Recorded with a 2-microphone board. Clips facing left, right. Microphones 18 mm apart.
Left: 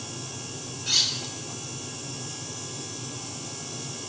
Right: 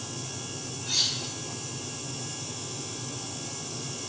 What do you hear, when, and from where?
0.9 s cutlery clinking: 70° left (ahead or behind), 0.6 m